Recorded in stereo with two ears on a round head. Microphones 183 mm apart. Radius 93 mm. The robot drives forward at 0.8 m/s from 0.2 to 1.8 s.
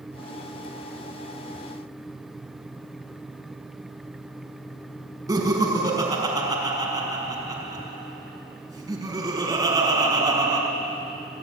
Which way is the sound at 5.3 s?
20° right (ahead or behind).